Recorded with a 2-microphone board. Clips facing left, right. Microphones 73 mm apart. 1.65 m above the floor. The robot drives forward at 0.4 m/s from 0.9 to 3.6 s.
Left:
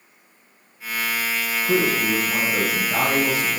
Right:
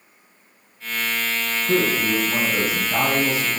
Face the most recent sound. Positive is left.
turn(degrees=5)  # may be behind; listen again after turning